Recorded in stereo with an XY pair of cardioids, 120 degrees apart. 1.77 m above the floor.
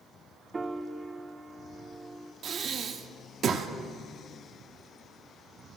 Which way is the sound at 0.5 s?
25° right.